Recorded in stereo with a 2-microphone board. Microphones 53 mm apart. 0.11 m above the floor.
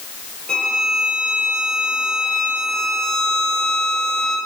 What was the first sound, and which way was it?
A violin, 15° left (ahead or behind).